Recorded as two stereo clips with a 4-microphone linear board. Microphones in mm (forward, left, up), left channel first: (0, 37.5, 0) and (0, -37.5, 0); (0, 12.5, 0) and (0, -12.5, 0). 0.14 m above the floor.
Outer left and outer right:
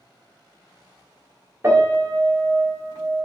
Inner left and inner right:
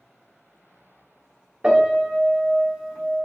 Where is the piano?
30° right (ahead or behind), 1.1 m.